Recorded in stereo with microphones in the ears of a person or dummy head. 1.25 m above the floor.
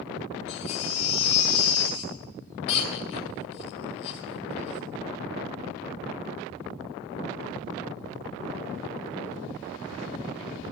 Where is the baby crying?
35° left (ahead or behind), 1.9 m.